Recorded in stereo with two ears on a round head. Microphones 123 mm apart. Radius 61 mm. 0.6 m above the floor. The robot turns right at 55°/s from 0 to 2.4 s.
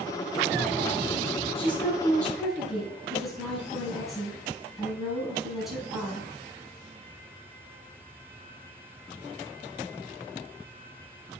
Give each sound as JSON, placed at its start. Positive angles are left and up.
{"t": 1.6, "sound": "a woman speaking", "azimuth_deg": 135, "distance_m": 4.5}